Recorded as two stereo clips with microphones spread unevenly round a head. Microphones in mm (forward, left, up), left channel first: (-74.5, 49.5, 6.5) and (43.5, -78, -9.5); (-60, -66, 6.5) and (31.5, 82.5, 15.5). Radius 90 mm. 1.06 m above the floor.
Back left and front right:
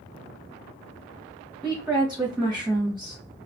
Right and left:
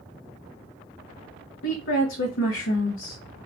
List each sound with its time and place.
1.6 s a woman speaking: 130° right, 0.8 m